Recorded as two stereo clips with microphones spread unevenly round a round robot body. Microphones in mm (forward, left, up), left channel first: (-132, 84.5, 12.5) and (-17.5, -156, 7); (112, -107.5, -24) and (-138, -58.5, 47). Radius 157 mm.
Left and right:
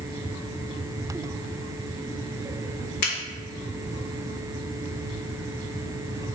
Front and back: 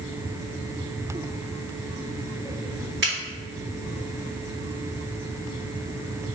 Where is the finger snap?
115° left, 1.8 m.